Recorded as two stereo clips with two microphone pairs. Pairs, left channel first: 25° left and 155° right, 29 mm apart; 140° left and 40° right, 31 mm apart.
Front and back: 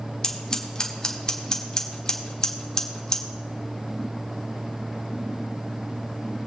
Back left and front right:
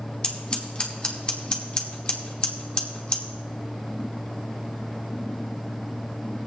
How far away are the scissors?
About 1.3 m.